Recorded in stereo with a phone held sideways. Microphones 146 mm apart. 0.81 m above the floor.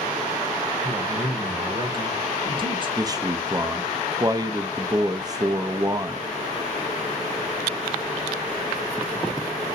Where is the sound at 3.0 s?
25° right (ahead or behind), 0.5 m.